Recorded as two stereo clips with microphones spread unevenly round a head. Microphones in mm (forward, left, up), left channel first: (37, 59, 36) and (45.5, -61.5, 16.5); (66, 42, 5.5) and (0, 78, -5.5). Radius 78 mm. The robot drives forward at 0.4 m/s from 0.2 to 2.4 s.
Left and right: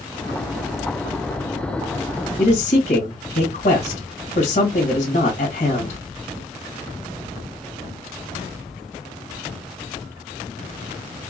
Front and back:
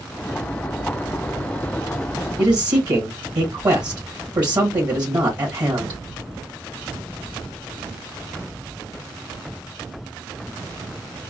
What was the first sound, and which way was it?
A man speaking, 125° left.